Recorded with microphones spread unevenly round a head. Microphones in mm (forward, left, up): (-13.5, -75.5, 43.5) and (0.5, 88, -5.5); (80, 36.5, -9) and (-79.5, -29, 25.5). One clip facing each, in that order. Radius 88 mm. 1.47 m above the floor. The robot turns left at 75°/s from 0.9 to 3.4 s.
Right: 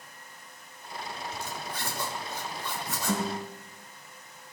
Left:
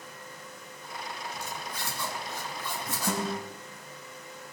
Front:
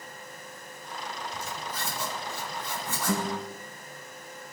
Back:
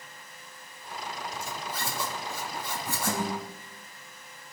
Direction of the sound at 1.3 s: 90° right.